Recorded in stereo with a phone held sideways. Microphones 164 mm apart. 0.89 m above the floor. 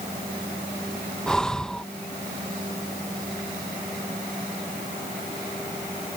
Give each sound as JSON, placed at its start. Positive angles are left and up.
{"t": 1.3, "sound": "breathing", "side_deg": 5}